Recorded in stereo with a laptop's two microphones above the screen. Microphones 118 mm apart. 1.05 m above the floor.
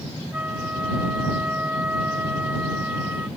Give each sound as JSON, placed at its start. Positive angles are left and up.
{"t": 0.3, "sound": "a flute", "side_deg": -15}